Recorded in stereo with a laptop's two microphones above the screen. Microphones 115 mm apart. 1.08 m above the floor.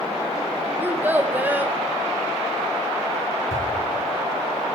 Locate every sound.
0.8 s a child speaking: 15° right (ahead or behind), 0.5 m
3.5 s a whoosh: 80° left, 4 m